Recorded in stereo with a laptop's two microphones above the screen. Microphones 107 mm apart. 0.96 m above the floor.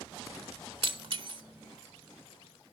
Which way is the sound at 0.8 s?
55° right (ahead or behind).